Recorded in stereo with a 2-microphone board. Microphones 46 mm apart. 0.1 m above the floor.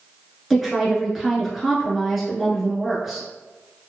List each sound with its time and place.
0.5 s a woman speaking: 5° right (ahead or behind), 1.1 m